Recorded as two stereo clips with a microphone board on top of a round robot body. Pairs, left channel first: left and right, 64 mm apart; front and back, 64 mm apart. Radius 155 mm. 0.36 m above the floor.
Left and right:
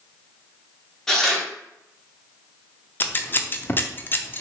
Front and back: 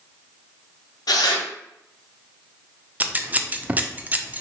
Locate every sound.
1.1 s tearing paper: 5° left, 0.8 m
3.0 s scissors: 130° left, 0.6 m